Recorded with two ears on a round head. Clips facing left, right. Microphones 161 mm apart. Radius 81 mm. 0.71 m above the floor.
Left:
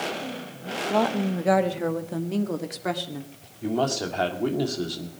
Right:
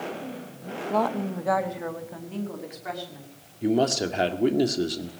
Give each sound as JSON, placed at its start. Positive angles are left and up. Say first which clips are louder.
{"t": 0.9, "sound": "a woman speaking", "louder": "left 2 dB", "side_deg": 5, "distance_m": 1.1}
{"t": 3.6, "sound": "a man speaking", "louder": "right 3 dB", "side_deg": -20, "distance_m": 1.8}